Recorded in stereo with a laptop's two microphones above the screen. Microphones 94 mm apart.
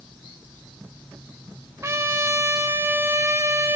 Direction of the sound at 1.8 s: 30° right (ahead or behind).